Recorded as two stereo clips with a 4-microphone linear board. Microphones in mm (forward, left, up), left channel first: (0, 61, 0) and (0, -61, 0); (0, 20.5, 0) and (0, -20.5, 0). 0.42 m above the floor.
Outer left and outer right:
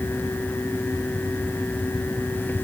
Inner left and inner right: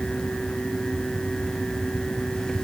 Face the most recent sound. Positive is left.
No sound to turn to.